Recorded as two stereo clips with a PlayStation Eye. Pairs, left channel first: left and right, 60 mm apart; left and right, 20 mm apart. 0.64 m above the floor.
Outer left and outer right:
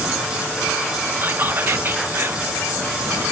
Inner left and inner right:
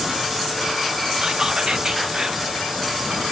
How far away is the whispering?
About 0.6 m.